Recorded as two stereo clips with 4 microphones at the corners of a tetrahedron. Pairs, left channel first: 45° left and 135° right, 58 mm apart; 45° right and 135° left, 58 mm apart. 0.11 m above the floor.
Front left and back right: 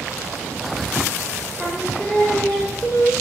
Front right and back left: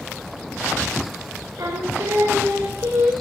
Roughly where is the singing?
Behind left.